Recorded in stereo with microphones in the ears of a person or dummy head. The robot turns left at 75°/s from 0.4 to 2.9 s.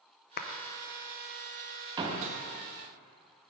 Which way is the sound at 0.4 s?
45° left (ahead or behind).